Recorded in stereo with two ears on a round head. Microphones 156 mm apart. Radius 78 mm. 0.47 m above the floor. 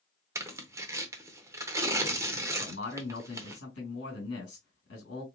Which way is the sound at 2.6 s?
65° left (ahead or behind).